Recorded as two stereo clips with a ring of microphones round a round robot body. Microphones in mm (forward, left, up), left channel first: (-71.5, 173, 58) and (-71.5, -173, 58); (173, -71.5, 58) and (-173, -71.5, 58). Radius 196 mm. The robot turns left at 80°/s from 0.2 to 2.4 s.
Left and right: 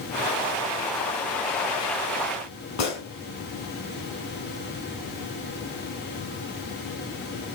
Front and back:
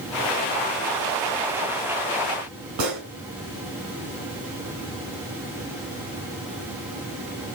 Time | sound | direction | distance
2.8 | a gunshot | 135° left | 2.5 m